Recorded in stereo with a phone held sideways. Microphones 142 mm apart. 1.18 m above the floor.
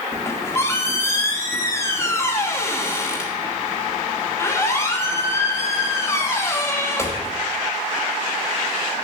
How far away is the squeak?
About 1.2 m.